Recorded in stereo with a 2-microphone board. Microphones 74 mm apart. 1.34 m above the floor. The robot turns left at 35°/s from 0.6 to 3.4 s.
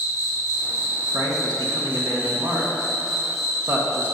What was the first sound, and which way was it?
An insect, 85° right.